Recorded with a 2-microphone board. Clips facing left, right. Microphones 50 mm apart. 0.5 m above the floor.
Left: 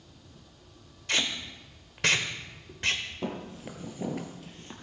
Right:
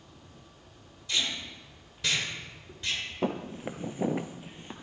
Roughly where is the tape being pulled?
Left.